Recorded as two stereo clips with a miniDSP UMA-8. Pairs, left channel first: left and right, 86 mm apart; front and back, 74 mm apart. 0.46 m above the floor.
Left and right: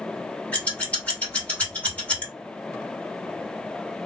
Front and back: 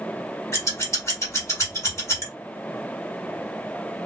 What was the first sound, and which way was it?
Scissors, 25° left.